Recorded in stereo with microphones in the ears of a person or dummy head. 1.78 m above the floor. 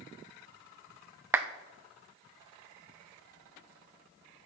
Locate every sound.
1.3 s a clap: 20° right (ahead or behind), 0.7 m